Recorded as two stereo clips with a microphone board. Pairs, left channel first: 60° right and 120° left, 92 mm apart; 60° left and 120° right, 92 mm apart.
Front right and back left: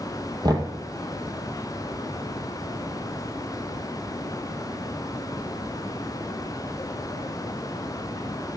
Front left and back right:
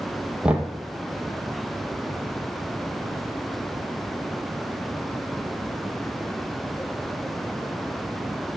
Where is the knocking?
160° left, 2 m.